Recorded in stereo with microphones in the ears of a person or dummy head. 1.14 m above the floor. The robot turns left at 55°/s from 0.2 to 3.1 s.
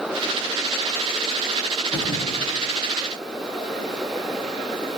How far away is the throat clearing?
I don't hear throat clearing.